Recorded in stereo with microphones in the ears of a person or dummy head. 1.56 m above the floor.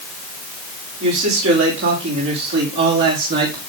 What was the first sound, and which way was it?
A man speaking, 75° right (ahead or behind).